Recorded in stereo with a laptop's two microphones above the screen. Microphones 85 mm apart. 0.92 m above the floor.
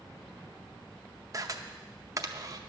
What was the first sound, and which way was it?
A camera shutter, 40° right (ahead or behind).